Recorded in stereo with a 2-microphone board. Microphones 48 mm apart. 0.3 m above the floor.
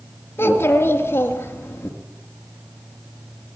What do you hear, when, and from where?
0.4 s a child speaking: 50° left (ahead or behind), 4 m